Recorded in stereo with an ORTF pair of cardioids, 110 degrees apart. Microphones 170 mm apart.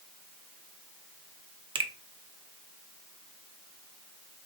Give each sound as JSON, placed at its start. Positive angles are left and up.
{"t": 1.8, "sound": "a finger snap", "azimuth_deg": -30, "distance_m": 0.6}